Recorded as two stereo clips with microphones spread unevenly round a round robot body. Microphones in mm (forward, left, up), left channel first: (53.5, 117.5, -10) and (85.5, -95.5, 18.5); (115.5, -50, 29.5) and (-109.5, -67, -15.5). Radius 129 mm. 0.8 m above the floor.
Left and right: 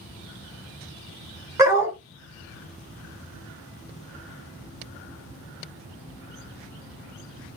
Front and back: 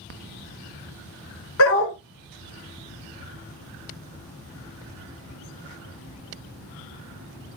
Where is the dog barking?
10° right, 1.6 m.